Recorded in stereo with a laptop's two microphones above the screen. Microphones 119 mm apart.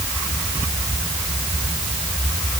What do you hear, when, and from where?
Only background noise.